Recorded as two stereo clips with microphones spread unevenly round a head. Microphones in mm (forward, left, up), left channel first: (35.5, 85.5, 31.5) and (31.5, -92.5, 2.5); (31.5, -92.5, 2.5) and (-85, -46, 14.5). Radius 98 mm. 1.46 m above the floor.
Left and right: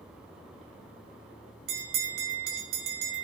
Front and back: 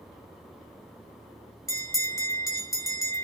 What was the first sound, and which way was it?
A bell, 85° right.